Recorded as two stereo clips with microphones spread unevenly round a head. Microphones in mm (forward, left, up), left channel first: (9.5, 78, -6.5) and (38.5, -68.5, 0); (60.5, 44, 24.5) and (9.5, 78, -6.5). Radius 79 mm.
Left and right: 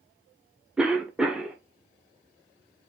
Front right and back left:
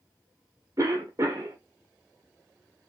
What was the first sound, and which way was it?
A cough, 165° right.